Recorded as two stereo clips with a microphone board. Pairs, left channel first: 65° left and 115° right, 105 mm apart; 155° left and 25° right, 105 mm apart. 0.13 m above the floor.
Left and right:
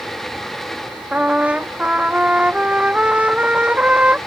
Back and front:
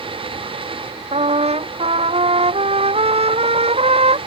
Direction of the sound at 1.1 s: 35° right.